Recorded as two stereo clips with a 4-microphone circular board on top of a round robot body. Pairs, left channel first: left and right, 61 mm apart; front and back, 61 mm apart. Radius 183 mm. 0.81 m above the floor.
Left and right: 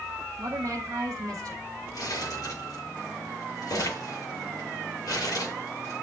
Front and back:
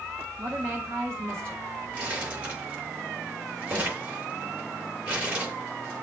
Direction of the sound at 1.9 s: 115° left.